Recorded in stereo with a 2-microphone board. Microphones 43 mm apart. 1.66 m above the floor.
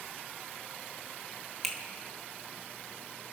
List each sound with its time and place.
1.6 s a finger snap: 5° left (ahead or behind), 2.0 m